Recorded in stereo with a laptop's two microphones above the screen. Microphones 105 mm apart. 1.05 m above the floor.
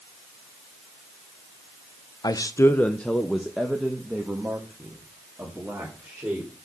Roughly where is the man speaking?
Left.